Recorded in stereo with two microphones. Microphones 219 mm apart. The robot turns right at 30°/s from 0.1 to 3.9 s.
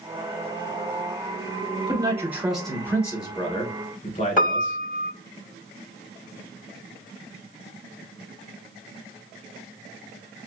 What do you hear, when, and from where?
1.9 s a man speaking: 20° right, 1.7 m; by 4.8 s 40° left, 1.7 m
4.4 s a piano: 40° left (ahead or behind), 0.8 m